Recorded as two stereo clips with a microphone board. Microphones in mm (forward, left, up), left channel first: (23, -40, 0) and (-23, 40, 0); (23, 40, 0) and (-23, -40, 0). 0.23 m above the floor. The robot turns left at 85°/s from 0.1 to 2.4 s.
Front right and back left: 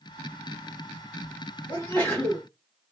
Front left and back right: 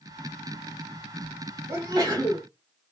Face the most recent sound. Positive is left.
turn(degrees=-155)